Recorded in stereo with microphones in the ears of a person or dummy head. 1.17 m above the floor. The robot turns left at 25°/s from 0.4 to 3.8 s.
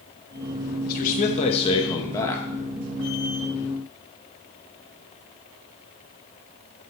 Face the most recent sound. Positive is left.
turn(degrees=-25)